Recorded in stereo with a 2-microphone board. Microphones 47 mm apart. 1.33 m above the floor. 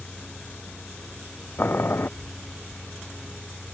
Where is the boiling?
50° left (ahead or behind).